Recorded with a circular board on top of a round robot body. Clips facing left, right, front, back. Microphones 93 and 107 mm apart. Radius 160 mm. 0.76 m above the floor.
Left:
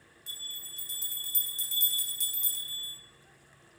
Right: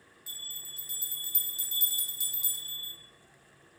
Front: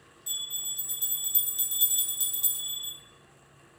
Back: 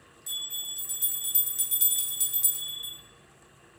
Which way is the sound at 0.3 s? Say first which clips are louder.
Left 2 dB, back 1 dB; 25° right.